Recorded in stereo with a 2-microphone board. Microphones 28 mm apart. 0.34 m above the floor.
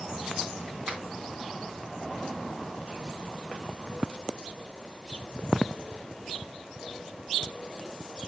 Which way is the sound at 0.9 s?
45° right (ahead or behind).